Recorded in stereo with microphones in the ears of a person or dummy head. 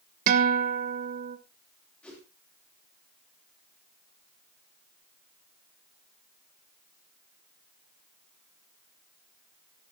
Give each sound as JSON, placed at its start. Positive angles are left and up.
{"t": 0.3, "sound": "a guitar", "side_deg": -45, "distance_m": 0.9}
{"t": 2.0, "sound": "a whoosh", "side_deg": 5, "distance_m": 2.5}